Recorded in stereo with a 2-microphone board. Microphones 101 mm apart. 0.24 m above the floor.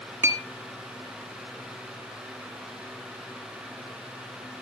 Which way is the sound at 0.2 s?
25° right (ahead or behind).